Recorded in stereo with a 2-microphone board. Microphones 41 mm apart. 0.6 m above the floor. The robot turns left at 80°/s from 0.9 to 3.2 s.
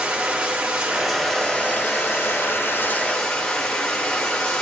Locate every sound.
0.0 s running water: 155° right, 5.5 m; by 4.6 s 20° left, 5.5 m